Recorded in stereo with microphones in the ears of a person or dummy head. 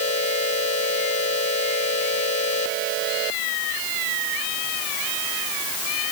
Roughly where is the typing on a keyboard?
No typing on a keyboard in this recording.